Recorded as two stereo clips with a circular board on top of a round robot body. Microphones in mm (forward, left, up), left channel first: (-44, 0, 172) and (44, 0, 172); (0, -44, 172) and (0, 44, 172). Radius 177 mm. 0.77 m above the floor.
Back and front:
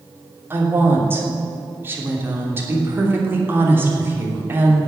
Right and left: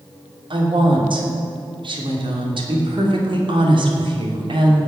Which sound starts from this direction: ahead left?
A woman speaking, at 0.5 s.